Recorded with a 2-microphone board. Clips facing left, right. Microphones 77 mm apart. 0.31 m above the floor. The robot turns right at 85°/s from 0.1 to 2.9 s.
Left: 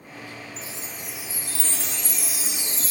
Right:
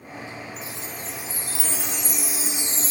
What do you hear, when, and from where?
0.6 s a chime: 25° left (ahead or behind), 0.7 m; by 2.9 s 25° right (ahead or behind), 0.7 m